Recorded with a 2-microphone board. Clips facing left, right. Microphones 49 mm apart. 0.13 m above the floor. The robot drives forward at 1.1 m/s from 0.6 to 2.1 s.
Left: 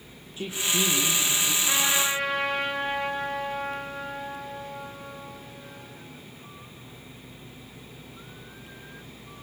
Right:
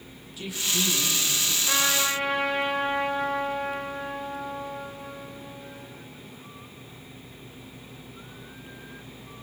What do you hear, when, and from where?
0.4 s a woman speaking: 35° left (ahead or behind), 4 m; by 1.6 s 25° left (ahead or behind), 5 m
1.7 s a trumpet: centre (ahead or behind), 8 m